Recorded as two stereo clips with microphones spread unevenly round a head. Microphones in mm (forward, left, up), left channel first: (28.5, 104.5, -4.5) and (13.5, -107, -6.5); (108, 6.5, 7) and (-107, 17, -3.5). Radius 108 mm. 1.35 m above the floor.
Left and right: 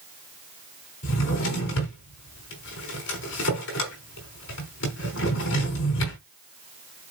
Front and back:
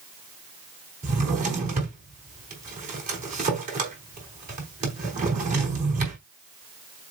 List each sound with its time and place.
1.0 s a drawer: 125° left, 4 m